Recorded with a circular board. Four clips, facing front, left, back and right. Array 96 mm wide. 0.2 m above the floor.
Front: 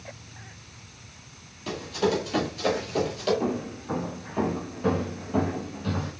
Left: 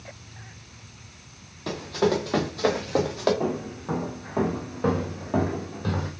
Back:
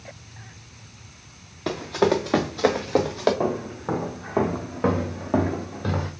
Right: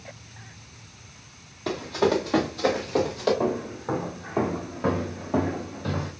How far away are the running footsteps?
About 1.7 m.